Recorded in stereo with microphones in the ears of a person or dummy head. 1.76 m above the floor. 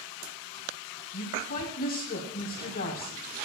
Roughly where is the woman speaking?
Left.